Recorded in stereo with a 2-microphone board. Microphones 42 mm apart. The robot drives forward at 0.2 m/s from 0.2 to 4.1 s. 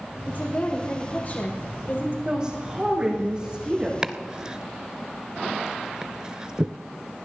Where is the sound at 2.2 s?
20° right (ahead or behind), 7 m.